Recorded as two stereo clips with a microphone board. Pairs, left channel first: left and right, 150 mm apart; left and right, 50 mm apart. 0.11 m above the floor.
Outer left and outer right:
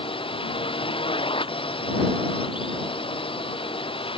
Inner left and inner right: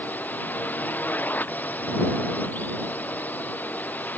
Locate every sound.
0.0 s a drone: 35° left (ahead or behind)